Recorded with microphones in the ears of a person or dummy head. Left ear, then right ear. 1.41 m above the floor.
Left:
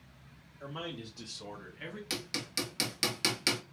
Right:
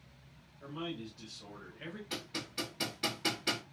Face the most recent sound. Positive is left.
turn(degrees=65)  # may be behind; listen again after turning